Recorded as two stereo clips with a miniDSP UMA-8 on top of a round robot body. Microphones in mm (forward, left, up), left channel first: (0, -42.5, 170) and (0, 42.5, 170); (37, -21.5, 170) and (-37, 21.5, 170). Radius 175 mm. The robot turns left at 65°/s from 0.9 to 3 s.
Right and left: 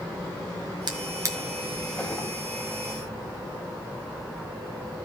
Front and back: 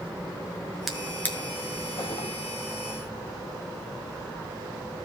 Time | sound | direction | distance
0.9 | a drawer | 60° left | 1.8 m